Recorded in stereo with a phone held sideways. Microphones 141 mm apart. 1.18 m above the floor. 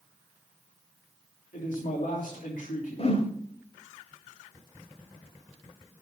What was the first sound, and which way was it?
A man speaking, 70° left (ahead or behind).